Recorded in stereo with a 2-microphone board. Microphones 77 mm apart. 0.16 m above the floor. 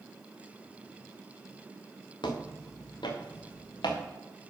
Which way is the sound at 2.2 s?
90° left.